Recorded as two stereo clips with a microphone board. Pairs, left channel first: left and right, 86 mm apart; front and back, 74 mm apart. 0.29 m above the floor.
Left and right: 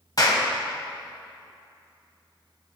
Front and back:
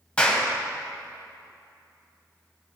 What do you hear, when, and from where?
0.2 s a clap: 70° left, 1.4 m